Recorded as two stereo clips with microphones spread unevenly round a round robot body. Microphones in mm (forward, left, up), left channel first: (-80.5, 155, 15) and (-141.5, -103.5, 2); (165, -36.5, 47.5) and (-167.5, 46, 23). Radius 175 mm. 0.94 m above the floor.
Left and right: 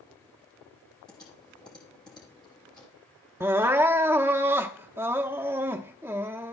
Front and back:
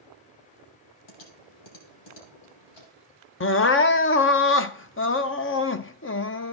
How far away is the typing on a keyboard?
About 5 m.